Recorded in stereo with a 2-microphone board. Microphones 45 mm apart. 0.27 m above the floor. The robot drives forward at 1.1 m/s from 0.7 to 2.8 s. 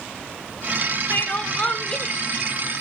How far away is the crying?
About 0.6 m.